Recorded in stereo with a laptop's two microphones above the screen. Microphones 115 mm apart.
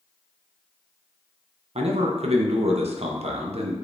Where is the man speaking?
65° right (ahead or behind), 0.6 m.